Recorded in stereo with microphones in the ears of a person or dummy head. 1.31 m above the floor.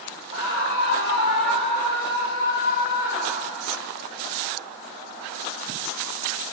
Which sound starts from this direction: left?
A scream, at 0.3 s.